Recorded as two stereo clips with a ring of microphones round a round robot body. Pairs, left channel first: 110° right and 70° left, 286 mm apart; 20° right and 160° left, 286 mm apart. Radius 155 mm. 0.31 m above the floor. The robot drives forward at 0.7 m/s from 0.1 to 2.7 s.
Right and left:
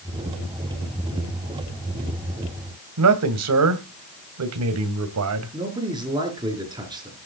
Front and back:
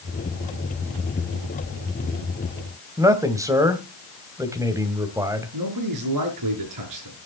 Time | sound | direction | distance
3.0 | a man speaking | 80° left | 2 m
5.5 | a man speaking | 145° left | 4.5 m